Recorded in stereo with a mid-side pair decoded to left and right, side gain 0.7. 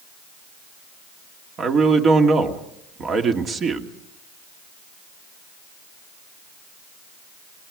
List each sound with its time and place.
1.6 s a man speaking: 35° right, 2.5 m